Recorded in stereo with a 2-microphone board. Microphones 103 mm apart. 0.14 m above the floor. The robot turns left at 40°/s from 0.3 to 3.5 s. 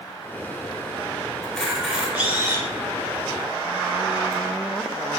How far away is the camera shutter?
About 0.7 m.